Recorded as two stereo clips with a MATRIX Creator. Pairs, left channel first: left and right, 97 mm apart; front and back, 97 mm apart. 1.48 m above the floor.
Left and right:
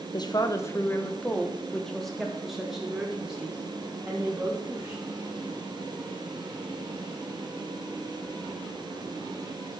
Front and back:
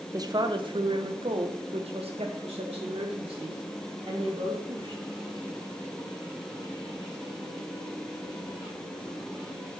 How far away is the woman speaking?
About 0.7 m.